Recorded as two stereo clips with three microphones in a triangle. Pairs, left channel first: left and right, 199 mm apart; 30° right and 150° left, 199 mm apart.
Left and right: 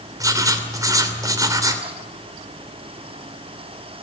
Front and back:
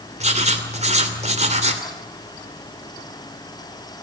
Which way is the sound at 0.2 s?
160° right.